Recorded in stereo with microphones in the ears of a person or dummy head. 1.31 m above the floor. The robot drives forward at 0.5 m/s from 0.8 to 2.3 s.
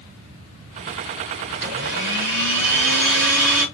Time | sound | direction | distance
1.5 | a blender | 65° right (ahead or behind) | 4.5 m